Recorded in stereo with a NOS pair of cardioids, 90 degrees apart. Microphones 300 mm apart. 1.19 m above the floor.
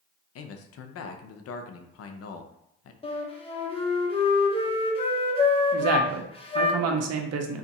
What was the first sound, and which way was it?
A man speaking, 55° left.